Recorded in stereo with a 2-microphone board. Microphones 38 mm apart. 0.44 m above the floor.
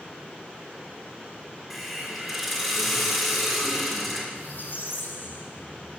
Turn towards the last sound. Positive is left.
turn(degrees=65)  # may be behind; listen again after turning